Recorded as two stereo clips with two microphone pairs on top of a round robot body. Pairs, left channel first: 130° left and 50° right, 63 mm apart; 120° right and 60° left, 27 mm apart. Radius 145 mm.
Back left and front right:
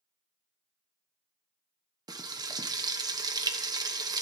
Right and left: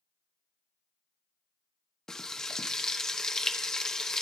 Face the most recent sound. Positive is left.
turn(degrees=-50)